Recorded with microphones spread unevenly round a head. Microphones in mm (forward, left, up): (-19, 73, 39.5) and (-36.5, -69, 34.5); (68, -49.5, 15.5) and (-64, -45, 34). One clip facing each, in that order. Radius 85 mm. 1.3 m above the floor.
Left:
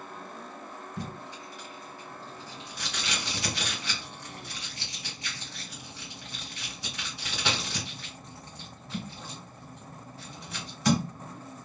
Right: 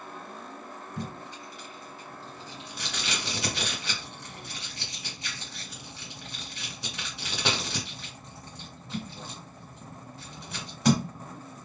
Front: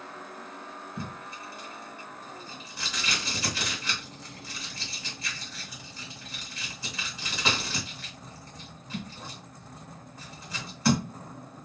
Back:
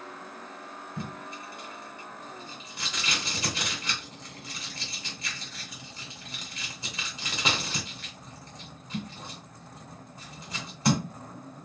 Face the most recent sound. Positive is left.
turn(degrees=-125)